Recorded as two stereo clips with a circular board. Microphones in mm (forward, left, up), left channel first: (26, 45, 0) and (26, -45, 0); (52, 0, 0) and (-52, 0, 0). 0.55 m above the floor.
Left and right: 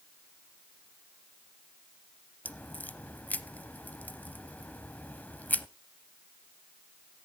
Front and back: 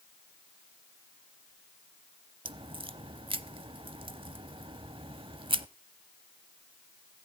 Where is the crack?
160° left, 0.6 m.